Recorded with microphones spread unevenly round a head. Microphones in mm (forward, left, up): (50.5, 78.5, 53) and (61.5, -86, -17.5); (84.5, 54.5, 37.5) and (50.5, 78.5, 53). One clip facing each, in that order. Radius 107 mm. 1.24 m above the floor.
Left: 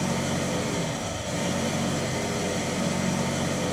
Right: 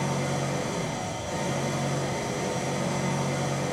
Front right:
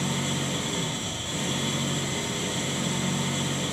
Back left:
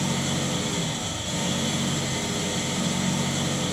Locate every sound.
0.0 s an engine running: 170° left, 5 m